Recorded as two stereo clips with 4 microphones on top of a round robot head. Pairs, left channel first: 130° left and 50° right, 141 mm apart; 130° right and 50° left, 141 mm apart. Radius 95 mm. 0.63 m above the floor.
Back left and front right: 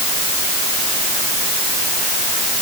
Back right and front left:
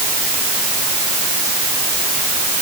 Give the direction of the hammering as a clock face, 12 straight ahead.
I don't hear hammering.